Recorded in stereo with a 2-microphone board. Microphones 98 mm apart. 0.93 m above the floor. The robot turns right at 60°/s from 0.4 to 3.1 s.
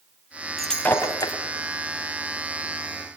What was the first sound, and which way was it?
Breaking glass, centre (ahead or behind).